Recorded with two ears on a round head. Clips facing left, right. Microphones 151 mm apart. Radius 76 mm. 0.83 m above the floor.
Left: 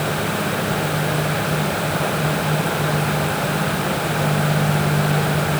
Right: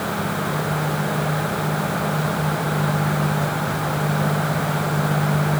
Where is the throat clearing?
I don't hear throat clearing.